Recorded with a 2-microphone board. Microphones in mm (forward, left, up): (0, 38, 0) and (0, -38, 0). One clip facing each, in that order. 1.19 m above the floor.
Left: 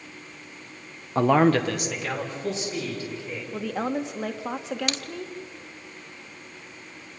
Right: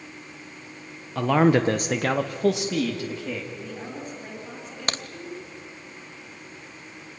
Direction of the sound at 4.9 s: 40° right (ahead or behind).